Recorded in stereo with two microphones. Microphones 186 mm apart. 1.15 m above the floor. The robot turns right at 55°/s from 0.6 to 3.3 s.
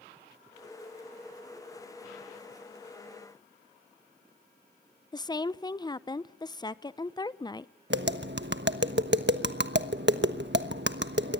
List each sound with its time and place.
5.1 s a woman speaking: 20° left (ahead or behind), 0.7 m
7.9 s tapping: 75° right (ahead or behind), 1.2 m